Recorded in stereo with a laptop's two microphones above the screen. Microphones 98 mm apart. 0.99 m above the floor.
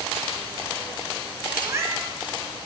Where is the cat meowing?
30° right (ahead or behind), 1.5 m.